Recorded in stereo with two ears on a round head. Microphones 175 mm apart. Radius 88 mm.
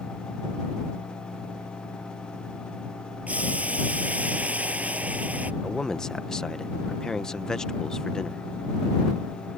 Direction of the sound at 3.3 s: 10° right (ahead or behind).